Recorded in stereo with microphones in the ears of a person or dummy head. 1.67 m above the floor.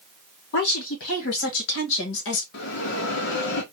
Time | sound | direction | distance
0.5 | a woman speaking | 60° left (ahead or behind) | 2.5 m
2.5 | a bell | 65° left (ahead or behind) | 1.0 m